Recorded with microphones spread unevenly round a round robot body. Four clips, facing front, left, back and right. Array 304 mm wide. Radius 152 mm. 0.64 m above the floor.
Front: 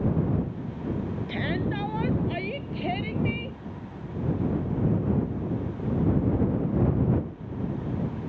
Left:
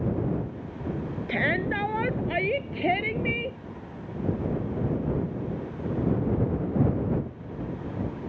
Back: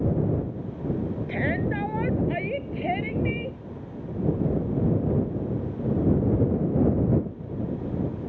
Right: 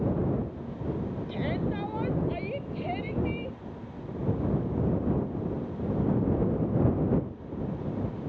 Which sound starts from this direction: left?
A shout, at 1.3 s.